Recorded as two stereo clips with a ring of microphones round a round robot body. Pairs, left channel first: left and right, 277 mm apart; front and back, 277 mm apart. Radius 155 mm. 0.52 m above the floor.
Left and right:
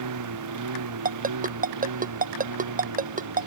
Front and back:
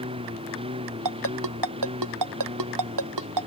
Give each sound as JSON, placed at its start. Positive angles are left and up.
{"t": 0.0, "sound": "a lawn mower", "azimuth_deg": -105}
{"t": 1.1, "sound": "a ringtone", "azimuth_deg": -150}